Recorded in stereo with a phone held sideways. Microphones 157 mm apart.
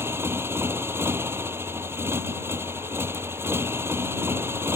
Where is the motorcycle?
15° right (ahead or behind).